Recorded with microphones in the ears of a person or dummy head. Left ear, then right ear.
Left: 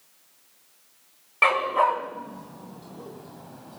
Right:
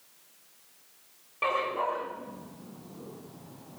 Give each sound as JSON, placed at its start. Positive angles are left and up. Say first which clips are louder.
{"t": 1.4, "sound": "a dog barking", "louder": "left 8 dB", "side_deg": 60, "distance_m": 4.5}